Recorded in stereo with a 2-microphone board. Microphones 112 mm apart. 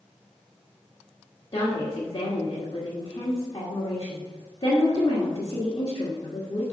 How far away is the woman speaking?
About 1.7 m.